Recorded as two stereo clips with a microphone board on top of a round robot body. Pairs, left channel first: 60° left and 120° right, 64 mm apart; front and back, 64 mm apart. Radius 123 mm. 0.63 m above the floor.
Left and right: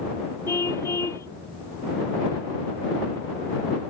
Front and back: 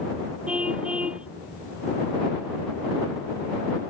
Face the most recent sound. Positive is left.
turn(degrees=105)